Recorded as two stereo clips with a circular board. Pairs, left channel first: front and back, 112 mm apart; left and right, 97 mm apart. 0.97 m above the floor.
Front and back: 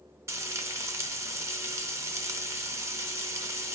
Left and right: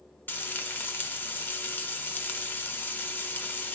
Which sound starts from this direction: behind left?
Frying, at 0.3 s.